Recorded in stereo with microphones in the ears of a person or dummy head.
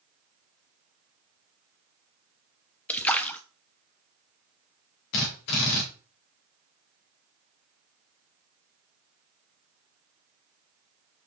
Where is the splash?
10° left (ahead or behind), 0.8 m.